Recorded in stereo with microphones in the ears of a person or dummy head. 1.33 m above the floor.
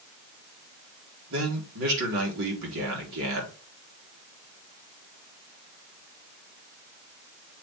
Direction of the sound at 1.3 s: 75° right (ahead or behind).